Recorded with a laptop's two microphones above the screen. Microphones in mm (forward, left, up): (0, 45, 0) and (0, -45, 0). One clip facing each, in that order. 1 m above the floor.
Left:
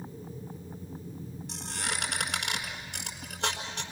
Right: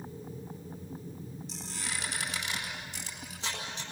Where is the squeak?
60° left (ahead or behind), 4.5 m.